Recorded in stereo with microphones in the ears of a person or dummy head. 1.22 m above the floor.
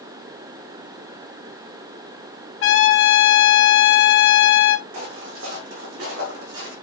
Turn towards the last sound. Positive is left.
turn(degrees=-75)  # may be behind; listen again after turning